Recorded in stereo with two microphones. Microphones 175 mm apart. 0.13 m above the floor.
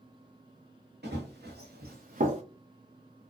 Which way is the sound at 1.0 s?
75° right (ahead or behind).